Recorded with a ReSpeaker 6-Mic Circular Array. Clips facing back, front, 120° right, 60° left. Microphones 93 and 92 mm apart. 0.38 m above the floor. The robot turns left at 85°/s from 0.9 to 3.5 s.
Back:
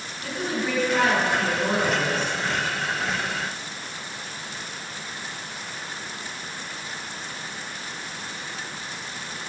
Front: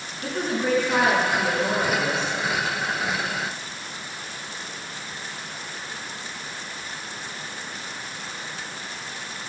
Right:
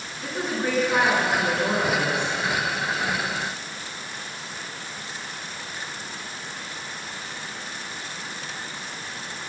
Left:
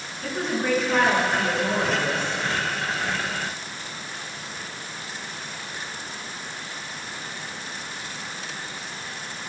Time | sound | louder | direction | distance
0.2 | a woman speaking | front 3 dB, left 1 dB | 35° right | 5 m